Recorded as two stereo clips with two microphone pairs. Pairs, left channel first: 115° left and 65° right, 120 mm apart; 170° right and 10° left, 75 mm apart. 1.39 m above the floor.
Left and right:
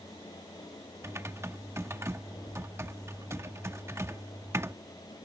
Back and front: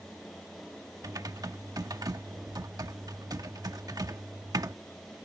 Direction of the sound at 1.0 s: 5° right.